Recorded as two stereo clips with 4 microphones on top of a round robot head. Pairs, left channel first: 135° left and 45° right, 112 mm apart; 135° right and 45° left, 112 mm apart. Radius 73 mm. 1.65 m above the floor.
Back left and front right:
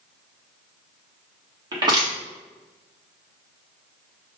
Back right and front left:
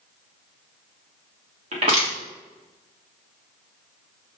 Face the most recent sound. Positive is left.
turn(degrees=10)